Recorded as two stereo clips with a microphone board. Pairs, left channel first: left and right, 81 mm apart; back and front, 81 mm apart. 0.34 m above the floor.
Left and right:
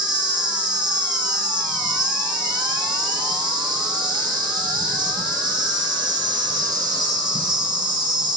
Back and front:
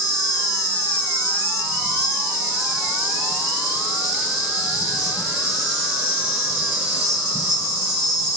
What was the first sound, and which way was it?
An insect, 80° right.